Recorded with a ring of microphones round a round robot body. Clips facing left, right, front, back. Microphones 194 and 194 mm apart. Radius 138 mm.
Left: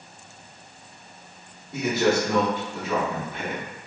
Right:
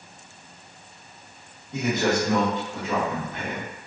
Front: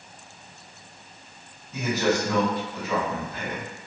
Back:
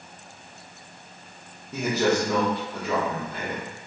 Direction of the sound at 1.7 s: 170° left.